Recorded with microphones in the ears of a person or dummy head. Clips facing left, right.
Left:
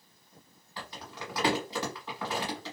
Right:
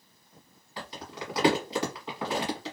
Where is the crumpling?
20° right (ahead or behind), 1.2 m.